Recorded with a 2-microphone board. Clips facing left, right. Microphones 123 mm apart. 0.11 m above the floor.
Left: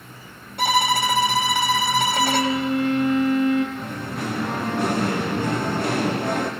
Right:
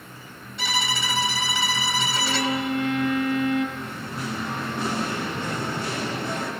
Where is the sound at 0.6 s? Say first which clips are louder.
Left 9 dB; 55° left (ahead or behind), 3 m.